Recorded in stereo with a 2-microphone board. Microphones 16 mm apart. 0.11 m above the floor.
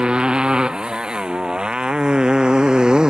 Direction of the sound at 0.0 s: 60° right (ahead or behind).